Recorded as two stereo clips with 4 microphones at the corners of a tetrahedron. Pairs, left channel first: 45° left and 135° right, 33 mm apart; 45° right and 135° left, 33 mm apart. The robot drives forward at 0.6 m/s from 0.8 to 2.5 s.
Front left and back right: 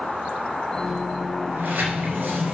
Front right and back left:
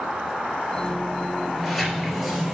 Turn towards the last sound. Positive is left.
turn(degrees=-140)